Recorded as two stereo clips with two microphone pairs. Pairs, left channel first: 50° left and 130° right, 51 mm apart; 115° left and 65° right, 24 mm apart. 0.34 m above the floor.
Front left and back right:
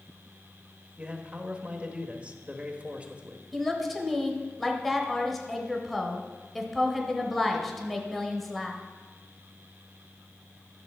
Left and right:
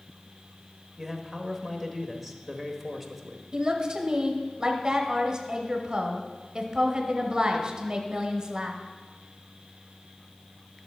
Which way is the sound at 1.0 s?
155° right.